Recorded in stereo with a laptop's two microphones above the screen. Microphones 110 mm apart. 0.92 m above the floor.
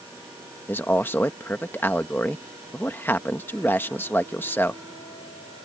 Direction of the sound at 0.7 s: 20° left (ahead or behind).